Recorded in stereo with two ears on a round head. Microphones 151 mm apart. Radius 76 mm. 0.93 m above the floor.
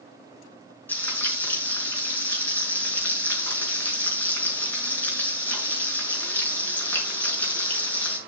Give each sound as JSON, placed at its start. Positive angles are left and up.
{"t": 0.9, "sound": "frying", "side_deg": 10, "distance_m": 6.5}